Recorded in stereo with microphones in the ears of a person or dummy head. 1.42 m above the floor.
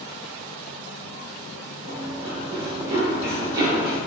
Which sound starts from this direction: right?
Running footsteps, at 1.9 s.